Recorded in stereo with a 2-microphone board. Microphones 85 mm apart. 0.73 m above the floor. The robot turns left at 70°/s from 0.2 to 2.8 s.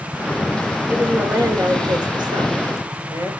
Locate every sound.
0.9 s a woman speaking: 15° right, 3 m; by 3.3 s 145° right, 3 m